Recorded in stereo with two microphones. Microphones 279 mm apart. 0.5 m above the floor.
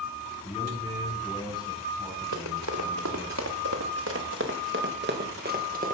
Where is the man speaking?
20° left (ahead or behind), 5 m; by 3.3 s 5° left (ahead or behind), 5.5 m.